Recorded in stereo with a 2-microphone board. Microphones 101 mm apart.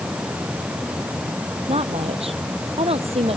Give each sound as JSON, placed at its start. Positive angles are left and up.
{"t": 1.7, "sound": "a woman speaking", "side_deg": -75}